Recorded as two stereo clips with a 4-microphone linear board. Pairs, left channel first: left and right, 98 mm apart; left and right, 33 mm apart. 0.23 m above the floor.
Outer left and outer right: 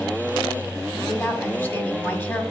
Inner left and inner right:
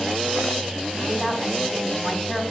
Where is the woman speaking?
20° left (ahead or behind), 1.5 m.